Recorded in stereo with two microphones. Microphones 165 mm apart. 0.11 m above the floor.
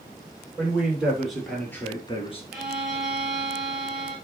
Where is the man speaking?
10° right (ahead or behind), 3 m; by 2.4 s 40° left (ahead or behind), 1.5 m.